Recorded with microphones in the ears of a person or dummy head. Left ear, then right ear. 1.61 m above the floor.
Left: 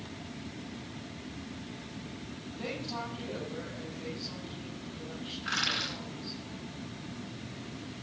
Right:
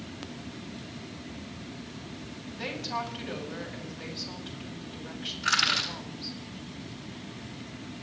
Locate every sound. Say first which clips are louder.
2.5 s a woman speaking: right 5 dB; 50° right (ahead or behind), 10 m
5.4 s crushing: right 6 dB; 55° right (ahead or behind), 8.5 m